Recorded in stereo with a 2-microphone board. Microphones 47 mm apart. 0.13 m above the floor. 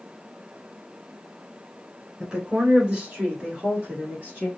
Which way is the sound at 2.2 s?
15° right (ahead or behind).